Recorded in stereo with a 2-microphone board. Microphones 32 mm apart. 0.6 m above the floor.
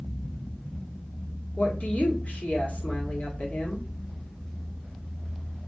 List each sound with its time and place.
1.6 s a woman speaking: 50° left (ahead or behind), 1.6 m